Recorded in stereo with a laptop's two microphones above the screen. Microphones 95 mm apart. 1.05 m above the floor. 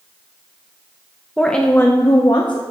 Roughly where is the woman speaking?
Centre.